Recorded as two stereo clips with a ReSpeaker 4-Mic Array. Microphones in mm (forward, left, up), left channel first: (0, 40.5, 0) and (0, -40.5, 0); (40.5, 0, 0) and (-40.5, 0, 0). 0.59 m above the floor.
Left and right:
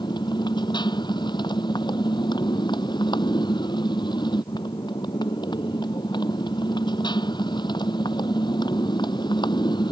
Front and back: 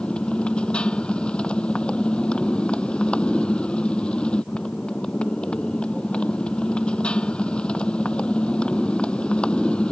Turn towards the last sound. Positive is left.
turn(degrees=75)